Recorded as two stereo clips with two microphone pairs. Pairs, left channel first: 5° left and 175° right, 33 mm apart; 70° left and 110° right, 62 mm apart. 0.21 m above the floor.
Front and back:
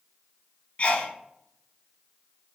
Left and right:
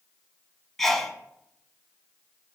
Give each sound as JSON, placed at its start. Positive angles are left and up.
{"t": 0.8, "sound": "a sneeze", "azimuth_deg": -10, "distance_m": 1.6}